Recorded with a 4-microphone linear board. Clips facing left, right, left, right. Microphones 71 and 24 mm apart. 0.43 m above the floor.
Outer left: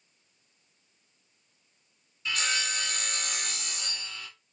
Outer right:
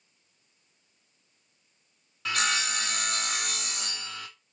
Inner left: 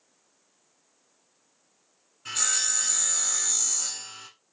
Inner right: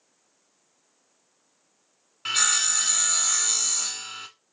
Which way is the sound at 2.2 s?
80° right.